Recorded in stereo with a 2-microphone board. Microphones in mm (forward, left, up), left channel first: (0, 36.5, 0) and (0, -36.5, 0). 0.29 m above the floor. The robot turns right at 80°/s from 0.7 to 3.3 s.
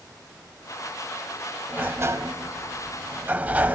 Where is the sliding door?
155° right, 0.8 m; by 3.8 s 30° right, 0.8 m.